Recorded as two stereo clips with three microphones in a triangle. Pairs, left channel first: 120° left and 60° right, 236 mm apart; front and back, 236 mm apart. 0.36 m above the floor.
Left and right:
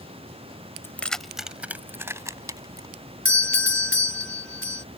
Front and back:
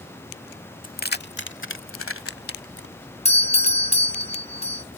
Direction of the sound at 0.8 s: 45° left.